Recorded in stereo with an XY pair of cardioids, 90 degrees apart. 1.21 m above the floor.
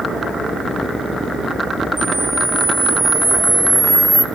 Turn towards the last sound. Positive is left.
turn(degrees=-20)